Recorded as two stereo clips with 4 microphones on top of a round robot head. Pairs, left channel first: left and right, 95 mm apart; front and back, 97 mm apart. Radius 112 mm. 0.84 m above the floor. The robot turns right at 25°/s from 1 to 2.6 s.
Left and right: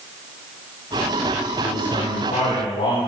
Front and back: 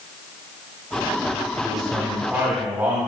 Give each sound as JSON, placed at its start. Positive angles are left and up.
{"t": 1.6, "sound": "a man speaking", "azimuth_deg": 85, "distance_m": 6.5}